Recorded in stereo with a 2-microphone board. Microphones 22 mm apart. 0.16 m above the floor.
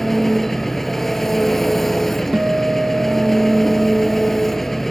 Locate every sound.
0.0 s an engine running: 15° left (ahead or behind), 1.1 m
2.3 s a guitar: 65° right (ahead or behind), 0.8 m